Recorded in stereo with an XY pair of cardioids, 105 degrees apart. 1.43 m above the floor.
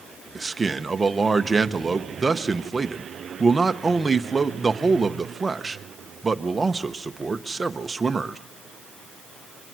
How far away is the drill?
No drill in this recording.